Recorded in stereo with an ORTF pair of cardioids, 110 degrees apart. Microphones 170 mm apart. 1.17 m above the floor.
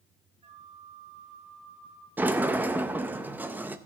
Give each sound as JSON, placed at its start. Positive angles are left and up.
{"t": 0.4, "sound": "a flute", "azimuth_deg": -40, "distance_m": 3.0}
{"t": 2.2, "sound": "a sliding door", "azimuth_deg": -10, "distance_m": 0.8}